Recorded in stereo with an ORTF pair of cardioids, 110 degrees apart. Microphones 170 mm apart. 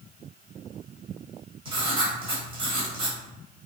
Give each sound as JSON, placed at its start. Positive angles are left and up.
{"t": 1.6, "sound": "writing", "azimuth_deg": -35, "distance_m": 1.0}